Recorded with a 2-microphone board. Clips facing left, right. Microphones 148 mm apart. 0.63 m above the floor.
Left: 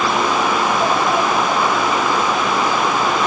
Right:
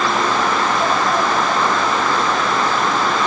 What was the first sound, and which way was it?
Only background noise.